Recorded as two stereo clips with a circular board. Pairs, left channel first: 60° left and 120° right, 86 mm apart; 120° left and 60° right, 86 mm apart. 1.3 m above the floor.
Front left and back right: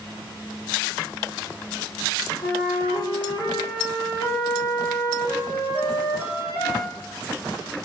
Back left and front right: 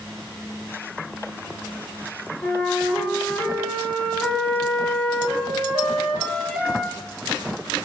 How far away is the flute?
About 1.9 m.